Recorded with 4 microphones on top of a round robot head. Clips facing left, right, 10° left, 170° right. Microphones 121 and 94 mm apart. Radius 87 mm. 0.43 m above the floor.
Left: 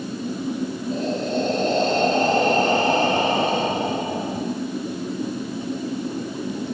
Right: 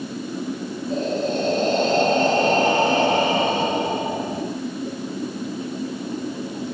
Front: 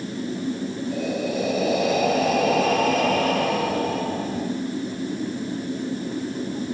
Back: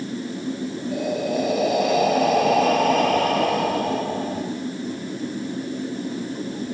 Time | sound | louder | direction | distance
0.9 | breathing | right 2 dB, back 3 dB | 80° right | 5 m